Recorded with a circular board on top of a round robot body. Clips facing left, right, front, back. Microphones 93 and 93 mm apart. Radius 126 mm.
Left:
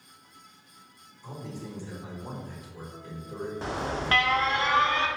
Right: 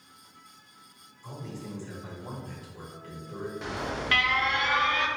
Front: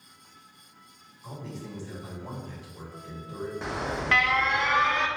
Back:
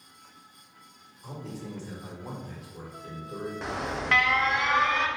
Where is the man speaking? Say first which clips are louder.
Left 1 dB, back 1 dB; 155° left, 1.4 m.